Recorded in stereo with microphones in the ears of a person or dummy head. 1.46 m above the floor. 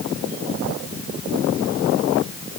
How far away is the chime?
No chime in this recording.